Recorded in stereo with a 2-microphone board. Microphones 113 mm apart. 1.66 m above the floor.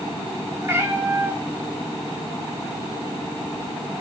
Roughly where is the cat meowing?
Right.